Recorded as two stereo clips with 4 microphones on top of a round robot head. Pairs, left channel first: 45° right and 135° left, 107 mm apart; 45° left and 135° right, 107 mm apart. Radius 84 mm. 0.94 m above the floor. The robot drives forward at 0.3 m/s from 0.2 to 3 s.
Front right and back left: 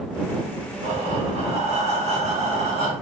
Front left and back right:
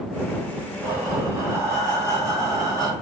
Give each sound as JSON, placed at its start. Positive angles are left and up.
{"t": 0.8, "sound": "breathing", "azimuth_deg": 160, "distance_m": 2.5}